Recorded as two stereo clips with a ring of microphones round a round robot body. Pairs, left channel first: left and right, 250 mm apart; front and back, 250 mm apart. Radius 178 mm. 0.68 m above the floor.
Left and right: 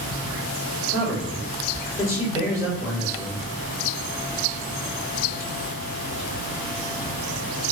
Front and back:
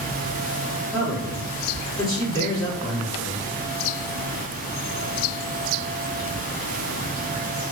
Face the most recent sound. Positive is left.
turn(degrees=75)